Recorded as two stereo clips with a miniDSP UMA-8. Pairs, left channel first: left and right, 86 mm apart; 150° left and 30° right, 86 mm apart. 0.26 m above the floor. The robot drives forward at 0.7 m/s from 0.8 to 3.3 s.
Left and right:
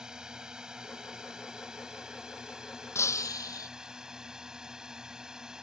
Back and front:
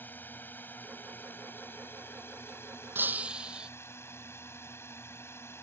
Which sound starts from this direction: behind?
A drone, at 0.0 s.